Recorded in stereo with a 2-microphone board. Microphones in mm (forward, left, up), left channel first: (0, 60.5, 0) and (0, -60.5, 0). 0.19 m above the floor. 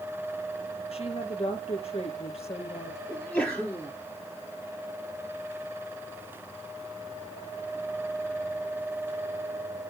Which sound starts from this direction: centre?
A sneeze, at 3.1 s.